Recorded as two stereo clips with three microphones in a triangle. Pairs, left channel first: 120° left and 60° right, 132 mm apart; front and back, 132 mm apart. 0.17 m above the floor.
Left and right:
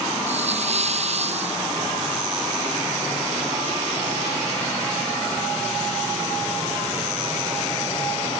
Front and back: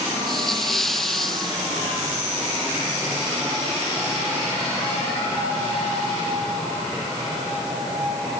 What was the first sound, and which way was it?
A hiss, 90° right.